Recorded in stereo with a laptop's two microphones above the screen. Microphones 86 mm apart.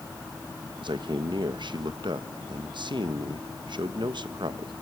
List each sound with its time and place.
0.8 s a man speaking: 65° right (ahead or behind), 1.0 m